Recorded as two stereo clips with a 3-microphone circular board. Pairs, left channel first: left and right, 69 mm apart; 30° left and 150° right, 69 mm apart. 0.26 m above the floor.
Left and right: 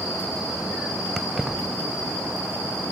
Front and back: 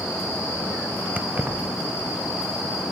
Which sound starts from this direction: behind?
Keys jangling, at 1.2 s.